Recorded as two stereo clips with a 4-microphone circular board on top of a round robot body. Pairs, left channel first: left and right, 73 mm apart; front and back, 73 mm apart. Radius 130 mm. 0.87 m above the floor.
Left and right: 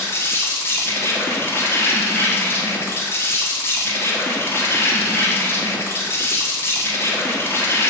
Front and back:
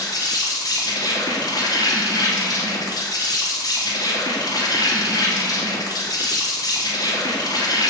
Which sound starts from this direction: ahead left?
An insect, at 0.0 s.